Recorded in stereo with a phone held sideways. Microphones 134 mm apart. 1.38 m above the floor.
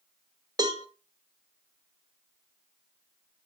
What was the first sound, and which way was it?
A cowbell, 30° right (ahead or behind).